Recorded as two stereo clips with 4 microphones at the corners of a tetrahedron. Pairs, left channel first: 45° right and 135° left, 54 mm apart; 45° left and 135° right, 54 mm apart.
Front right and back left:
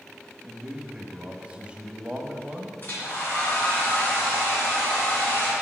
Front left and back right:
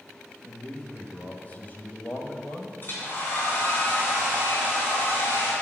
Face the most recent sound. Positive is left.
turn(degrees=0)